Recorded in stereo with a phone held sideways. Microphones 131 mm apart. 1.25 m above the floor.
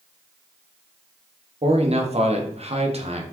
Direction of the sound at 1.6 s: 50° right (ahead or behind).